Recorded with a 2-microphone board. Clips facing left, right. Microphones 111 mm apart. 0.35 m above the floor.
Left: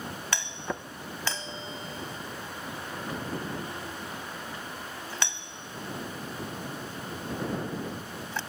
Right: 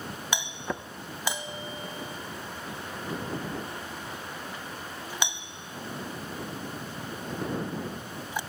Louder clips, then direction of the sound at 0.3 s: Right 2 dB; 15° right (ahead or behind).